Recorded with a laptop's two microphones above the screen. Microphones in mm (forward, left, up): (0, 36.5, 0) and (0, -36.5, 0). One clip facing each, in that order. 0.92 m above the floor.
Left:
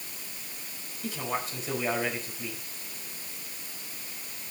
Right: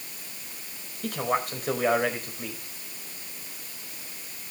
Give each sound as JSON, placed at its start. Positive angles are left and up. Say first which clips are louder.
{"t": 1.0, "sound": "a man speaking", "louder": "right 5 dB", "side_deg": -55, "distance_m": 4.5}